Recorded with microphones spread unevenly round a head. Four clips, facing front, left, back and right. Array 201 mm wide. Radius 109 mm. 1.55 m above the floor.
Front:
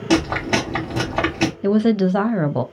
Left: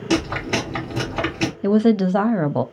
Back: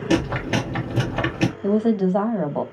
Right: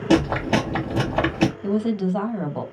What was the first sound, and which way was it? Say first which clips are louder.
Chewing: right 3 dB, front 3 dB; 65° right.